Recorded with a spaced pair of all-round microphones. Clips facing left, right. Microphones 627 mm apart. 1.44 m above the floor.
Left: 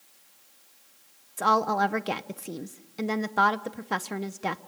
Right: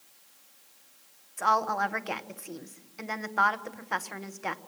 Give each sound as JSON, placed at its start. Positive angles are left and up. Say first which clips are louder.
{"t": 1.4, "sound": "a woman speaking", "louder": "left 6 dB", "side_deg": 60, "distance_m": 0.9}